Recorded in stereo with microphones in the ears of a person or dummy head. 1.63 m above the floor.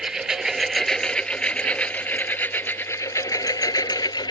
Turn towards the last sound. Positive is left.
turn(degrees=20)  # may be behind; listen again after turning